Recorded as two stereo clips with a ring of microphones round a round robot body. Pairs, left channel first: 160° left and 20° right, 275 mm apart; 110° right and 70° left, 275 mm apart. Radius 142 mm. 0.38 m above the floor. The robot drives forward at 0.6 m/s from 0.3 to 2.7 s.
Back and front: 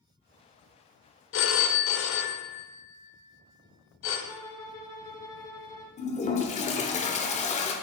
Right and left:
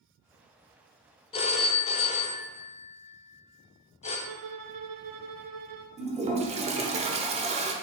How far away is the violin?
About 0.9 m.